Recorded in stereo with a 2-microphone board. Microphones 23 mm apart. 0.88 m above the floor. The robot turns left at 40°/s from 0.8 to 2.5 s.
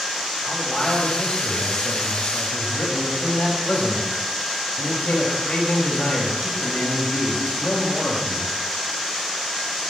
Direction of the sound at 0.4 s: 160° left.